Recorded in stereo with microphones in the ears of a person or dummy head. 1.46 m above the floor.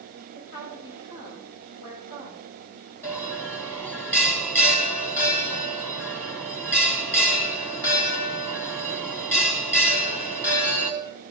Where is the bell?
20° left (ahead or behind), 2.0 m.